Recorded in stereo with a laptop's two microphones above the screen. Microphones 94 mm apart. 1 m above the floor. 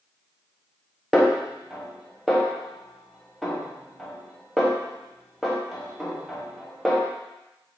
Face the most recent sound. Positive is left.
turn(degrees=-5)  # may be behind; listen again after turning